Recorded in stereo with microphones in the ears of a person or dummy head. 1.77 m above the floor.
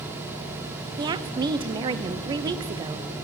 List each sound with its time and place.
1.0 s a woman speaking: 25° right (ahead or behind), 0.7 m